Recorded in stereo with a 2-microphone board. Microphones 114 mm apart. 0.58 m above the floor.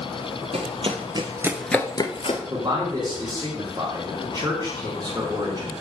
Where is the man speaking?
35° right (ahead or behind), 1.8 m.